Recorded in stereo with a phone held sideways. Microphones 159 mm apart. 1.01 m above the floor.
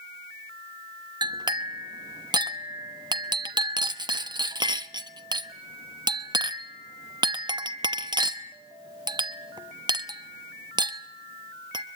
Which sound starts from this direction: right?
A clink, at 1.2 s.